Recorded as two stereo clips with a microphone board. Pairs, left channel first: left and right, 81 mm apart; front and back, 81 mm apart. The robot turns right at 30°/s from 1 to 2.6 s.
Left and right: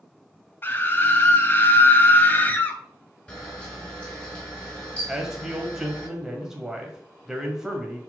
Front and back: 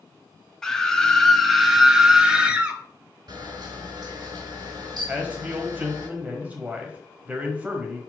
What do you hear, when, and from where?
0.6 s a scream: 75° left, 1.0 m; by 2.8 s 125° left, 1.0 m
3.3 s a camera shutter: 160° left, 3 m
5.1 s a man speaking: 160° right, 1.3 m